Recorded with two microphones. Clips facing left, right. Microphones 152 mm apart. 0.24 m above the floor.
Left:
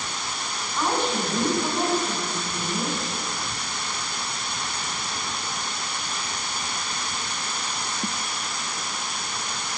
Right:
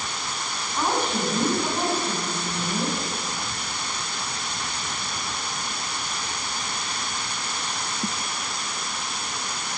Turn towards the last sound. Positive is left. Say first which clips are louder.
# even
turn(degrees=-15)  # may be behind; listen again after turning